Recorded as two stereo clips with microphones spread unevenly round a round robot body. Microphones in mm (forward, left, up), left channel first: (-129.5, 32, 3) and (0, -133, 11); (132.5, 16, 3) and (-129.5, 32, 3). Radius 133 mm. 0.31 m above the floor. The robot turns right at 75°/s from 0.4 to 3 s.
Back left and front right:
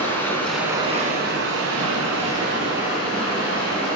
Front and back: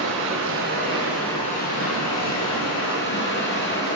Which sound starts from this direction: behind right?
Running water, at 0.0 s.